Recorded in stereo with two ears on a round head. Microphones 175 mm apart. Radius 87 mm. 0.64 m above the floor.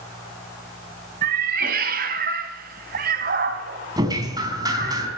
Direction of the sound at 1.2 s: 50° right (ahead or behind).